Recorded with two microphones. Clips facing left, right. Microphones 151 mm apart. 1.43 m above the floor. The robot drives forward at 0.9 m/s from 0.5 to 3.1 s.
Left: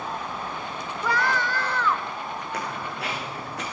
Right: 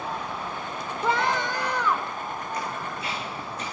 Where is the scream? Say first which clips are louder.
Right 1 dB; 25° right (ahead or behind), 1.3 m; by 2.2 s 15° right (ahead or behind), 2.5 m.